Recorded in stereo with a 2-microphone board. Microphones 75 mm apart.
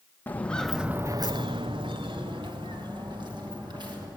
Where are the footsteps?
20° left (ahead or behind), 1.4 m; by 4.1 s 65° right (ahead or behind), 5 m.